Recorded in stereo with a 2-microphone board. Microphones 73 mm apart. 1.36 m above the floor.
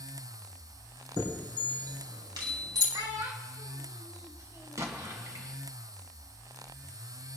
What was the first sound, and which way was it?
A chime, 75° right (ahead or behind).